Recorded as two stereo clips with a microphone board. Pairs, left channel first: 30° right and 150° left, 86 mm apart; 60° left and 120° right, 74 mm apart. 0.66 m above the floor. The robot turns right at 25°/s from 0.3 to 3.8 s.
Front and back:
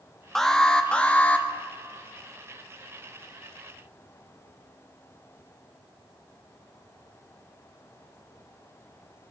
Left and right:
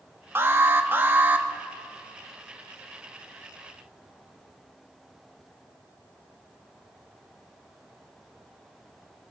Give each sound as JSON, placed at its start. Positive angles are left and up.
{"t": 0.3, "sound": "an alarm", "azimuth_deg": -110, "distance_m": 0.5}